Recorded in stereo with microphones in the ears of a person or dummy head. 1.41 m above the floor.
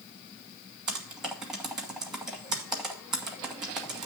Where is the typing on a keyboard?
Centre (ahead or behind), 1.2 m.